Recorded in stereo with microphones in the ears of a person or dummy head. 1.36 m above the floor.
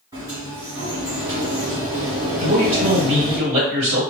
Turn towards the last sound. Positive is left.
turn(degrees=-35)  # may be behind; listen again after turning